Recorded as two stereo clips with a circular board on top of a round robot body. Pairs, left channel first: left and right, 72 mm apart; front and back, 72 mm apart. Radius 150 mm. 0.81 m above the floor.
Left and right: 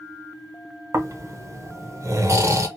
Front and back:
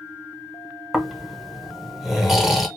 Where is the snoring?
95° right, 0.9 m.